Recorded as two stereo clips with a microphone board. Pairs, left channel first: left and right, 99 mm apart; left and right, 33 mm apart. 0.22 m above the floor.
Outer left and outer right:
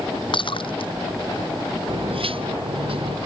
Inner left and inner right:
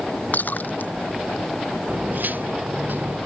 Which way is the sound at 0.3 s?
60° left (ahead or behind).